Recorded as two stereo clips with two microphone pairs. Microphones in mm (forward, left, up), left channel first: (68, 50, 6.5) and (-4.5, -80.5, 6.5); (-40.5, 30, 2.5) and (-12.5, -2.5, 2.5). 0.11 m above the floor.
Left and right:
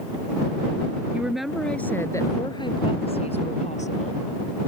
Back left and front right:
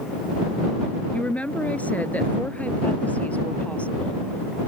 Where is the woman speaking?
165° left; by 4.2 s 75° left.